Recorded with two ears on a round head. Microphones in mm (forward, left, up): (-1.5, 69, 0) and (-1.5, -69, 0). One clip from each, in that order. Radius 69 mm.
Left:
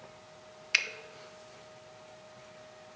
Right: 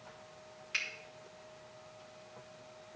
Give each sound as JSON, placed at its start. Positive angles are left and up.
{"t": 0.7, "sound": "a finger snap", "side_deg": 45, "distance_m": 0.6}